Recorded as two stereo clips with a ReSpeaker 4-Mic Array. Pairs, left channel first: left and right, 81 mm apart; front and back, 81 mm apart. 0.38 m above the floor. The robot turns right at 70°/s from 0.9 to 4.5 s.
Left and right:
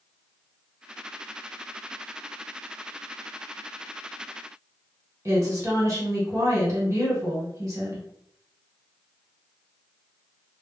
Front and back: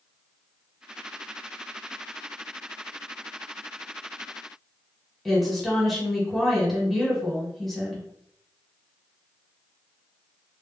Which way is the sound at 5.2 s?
85° right.